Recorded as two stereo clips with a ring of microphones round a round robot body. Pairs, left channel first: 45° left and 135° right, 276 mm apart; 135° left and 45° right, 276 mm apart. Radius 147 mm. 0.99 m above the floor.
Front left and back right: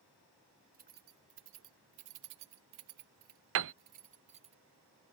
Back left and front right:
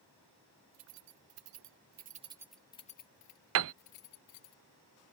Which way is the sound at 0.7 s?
75° right.